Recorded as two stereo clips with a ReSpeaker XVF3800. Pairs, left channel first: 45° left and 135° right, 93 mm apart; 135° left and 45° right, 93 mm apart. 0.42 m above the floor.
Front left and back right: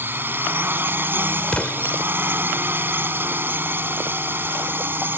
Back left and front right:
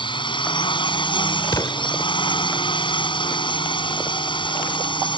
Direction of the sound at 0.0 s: 160° left.